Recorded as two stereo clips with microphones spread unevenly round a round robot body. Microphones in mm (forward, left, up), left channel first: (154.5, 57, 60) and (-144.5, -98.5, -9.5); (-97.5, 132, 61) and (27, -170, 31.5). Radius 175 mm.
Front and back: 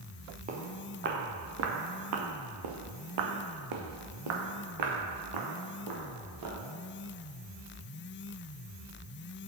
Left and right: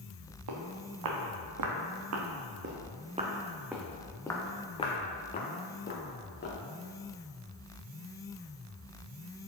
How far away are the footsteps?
About 2 m.